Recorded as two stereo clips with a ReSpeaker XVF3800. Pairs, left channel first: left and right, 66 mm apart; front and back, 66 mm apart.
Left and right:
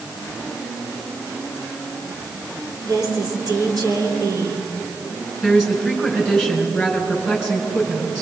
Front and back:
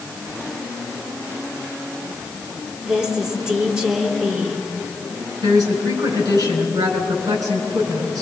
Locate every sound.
2.8 s a woman speaking: 105° right, 3 m
5.4 s a woman speaking: 175° right, 5.5 m